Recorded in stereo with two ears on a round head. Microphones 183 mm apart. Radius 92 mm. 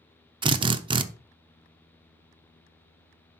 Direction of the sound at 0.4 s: 25° right (ahead or behind).